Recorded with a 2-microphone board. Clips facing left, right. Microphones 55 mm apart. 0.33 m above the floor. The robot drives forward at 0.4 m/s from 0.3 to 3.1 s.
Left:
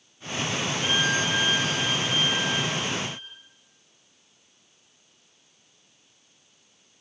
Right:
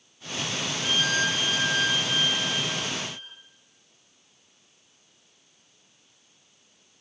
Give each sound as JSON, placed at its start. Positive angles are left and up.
{"t": 0.8, "sound": "a violin", "side_deg": -75, "distance_m": 1.3}